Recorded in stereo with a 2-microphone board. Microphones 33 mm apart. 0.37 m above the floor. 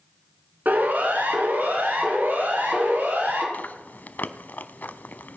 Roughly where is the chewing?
Left.